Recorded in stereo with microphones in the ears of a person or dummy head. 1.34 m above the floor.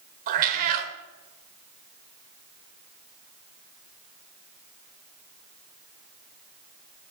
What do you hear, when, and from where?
0.3 s a cat meowing: 45° right (ahead or behind), 1.5 m